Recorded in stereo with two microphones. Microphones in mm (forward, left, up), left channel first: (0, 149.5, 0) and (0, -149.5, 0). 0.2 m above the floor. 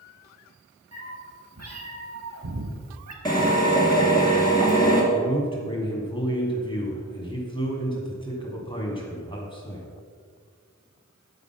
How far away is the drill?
About 2.5 m.